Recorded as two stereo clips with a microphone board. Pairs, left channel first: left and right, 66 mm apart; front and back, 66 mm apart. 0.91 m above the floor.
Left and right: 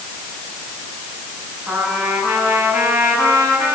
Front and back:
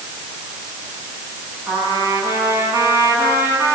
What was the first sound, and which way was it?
A trumpet, 140° right.